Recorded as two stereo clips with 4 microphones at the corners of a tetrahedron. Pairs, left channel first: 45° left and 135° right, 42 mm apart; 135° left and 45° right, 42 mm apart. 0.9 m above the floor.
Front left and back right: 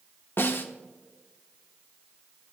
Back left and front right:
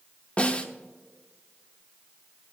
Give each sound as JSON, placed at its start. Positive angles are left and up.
{"t": 0.4, "sound": "a snare drum", "azimuth_deg": 75, "distance_m": 1.1}